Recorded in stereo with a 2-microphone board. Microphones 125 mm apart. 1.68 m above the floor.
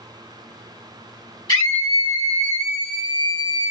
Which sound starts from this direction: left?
A scream, at 1.5 s.